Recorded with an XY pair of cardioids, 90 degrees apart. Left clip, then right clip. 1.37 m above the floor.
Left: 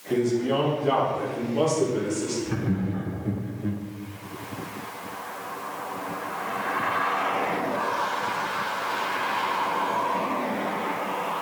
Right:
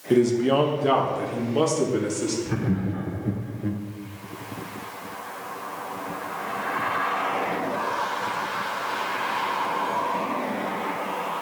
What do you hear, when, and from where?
0.1 s a man speaking: 60° right, 1.4 m
2.5 s laughter: 20° right, 0.8 m